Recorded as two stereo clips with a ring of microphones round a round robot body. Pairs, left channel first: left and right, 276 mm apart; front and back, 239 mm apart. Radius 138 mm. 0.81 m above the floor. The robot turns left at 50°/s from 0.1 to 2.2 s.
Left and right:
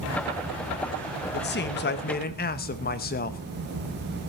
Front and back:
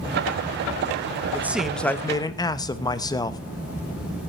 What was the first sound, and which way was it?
A man speaking, 105° left.